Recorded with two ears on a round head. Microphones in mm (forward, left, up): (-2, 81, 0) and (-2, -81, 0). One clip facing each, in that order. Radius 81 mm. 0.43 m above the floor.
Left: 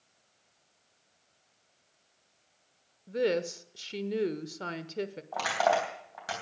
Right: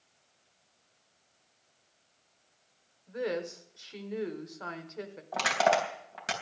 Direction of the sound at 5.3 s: 30° right (ahead or behind).